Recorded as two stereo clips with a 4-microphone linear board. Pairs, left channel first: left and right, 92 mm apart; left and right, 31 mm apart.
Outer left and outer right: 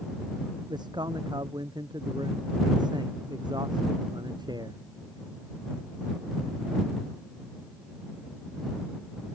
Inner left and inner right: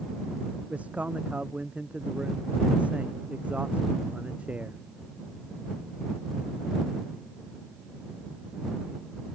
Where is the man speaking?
55° right (ahead or behind).